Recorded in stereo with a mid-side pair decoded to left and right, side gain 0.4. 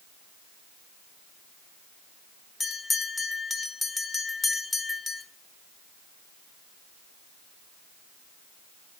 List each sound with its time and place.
2.6 s a bell: 35° left, 1.2 m